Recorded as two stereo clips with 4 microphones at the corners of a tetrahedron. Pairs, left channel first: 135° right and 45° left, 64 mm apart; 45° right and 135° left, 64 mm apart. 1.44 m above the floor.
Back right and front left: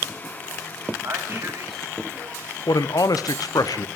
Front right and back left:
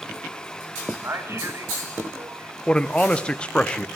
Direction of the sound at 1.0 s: 90° left.